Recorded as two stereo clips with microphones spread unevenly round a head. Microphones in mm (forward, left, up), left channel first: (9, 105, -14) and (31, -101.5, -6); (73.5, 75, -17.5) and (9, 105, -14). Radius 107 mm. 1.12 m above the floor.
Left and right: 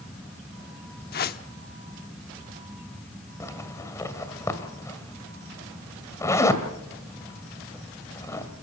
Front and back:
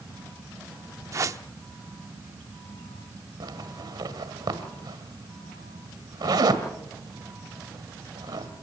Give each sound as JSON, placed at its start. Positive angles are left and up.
{"t": 1.1, "sound": "a whoosh", "azimuth_deg": 135, "distance_m": 0.9}
{"t": 3.4, "sound": "a zipper", "azimuth_deg": 175, "distance_m": 1.8}